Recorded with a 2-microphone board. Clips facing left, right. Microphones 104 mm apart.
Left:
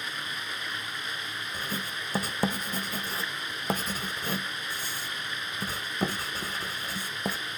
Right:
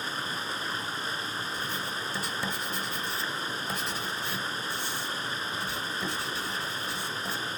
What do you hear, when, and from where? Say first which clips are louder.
0.0 s running water: right 3 dB; 30° right (ahead or behind), 1.1 m
1.5 s writing: right 1 dB; 45° left (ahead or behind), 1.0 m